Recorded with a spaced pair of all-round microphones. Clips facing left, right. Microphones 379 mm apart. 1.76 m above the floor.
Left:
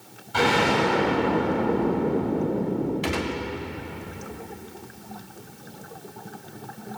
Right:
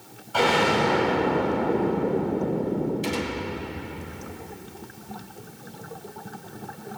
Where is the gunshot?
75° left (ahead or behind), 1.6 m.